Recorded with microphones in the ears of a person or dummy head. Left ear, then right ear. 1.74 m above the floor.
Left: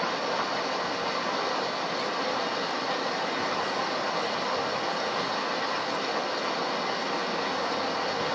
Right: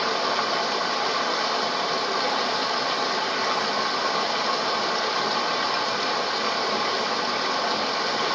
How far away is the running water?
About 0.9 m.